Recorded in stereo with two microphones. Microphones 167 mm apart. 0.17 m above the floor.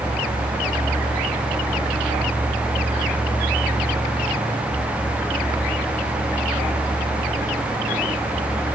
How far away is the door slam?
No door slam in this recording.